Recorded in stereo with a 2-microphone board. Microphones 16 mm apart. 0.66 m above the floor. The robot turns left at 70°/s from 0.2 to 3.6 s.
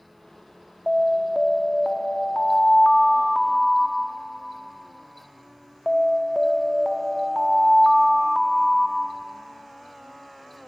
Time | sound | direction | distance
0.9 | an alarm | 165° right | 1.0 m